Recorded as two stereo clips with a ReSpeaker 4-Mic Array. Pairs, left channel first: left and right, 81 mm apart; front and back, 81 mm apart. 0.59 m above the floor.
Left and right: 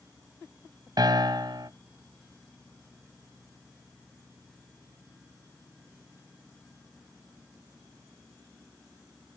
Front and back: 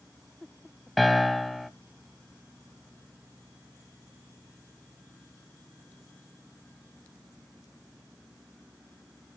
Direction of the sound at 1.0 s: 90° right.